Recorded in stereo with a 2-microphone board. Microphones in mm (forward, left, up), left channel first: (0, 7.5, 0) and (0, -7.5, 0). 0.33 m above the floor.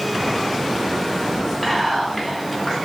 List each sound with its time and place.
1.6 s whispering: 10° left (ahead or behind), 1.4 m